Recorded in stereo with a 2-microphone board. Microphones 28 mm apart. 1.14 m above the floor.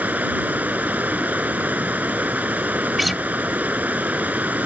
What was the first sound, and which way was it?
Running water, 85° right.